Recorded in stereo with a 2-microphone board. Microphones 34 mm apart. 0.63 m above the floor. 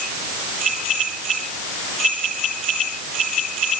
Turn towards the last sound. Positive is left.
No sound to turn to.